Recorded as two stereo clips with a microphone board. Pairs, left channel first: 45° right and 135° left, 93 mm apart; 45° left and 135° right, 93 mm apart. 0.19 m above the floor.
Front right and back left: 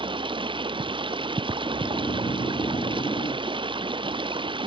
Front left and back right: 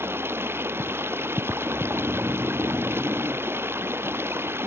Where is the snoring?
70° right.